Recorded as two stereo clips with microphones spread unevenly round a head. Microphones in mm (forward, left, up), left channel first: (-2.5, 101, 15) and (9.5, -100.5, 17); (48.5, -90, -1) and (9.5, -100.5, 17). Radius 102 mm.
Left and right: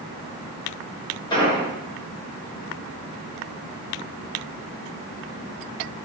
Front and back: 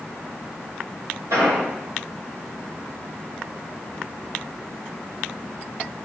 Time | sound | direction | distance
1.3 | an explosion | 160° left | 1.5 m